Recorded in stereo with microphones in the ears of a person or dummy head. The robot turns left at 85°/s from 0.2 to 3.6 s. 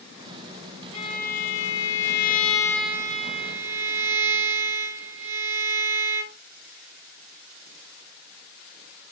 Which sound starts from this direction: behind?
A violin, at 0.9 s.